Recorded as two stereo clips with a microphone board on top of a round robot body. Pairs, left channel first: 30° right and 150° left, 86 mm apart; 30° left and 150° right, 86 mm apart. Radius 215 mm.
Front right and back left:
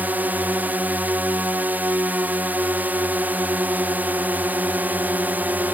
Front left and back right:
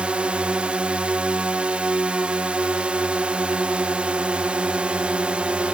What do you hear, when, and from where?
0.0 s a drone: 160° left